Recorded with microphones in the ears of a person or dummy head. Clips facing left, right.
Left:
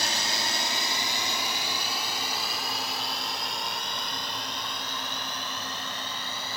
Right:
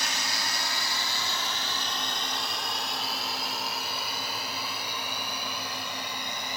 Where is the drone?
35° left (ahead or behind); by 6.6 s 15° right (ahead or behind).